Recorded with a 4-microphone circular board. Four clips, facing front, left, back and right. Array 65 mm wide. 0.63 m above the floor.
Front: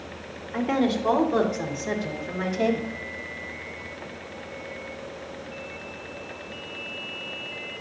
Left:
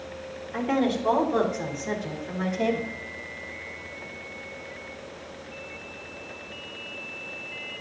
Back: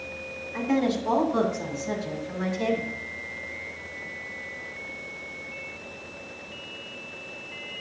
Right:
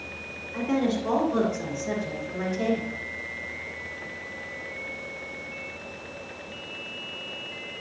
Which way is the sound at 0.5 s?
25° left.